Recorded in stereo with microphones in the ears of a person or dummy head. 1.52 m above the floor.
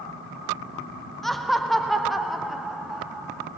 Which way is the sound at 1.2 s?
Centre (ahead or behind).